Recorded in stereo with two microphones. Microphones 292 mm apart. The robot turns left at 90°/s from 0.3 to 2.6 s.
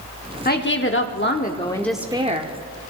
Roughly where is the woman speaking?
Behind left.